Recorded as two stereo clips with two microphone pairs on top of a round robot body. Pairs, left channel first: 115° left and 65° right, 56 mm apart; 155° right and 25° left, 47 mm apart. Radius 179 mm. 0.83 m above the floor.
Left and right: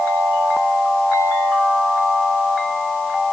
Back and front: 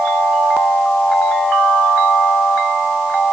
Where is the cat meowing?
No cat meowing in this recording.